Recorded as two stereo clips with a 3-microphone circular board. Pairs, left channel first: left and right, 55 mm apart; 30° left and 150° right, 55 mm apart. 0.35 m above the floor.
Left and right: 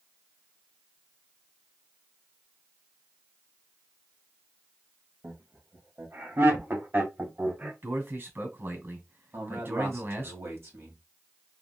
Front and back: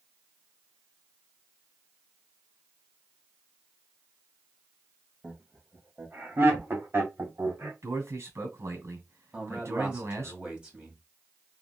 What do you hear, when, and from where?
5.2 s laughter: 90° right, 1.8 m; by 7.7 s 135° right, 2 m
7.8 s a man speaking: 130° right, 2 m
9.3 s a man speaking: 80° right, 1.9 m